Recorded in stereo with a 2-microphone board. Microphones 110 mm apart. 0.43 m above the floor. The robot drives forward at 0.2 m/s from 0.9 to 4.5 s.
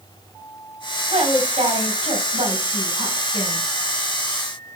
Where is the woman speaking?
70° right (ahead or behind), 3 m; by 3.7 s 65° right (ahead or behind), 3 m.